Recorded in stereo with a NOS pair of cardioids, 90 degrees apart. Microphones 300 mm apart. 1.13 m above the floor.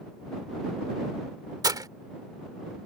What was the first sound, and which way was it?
Breaking glass, 10° right.